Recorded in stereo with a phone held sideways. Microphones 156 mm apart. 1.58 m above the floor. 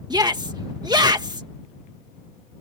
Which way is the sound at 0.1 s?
25° right (ahead or behind).